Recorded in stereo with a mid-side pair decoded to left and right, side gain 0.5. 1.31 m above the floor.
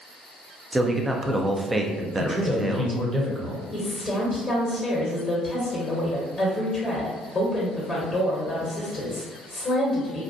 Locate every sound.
0.7 s a man speaking: 20° right, 0.5 m
2.2 s a man speaking: 20° right, 0.9 m
3.7 s a woman speaking: 25° left, 0.9 m